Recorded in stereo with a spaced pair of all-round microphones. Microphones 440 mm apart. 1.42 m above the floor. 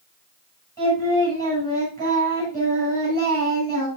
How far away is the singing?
About 8 m.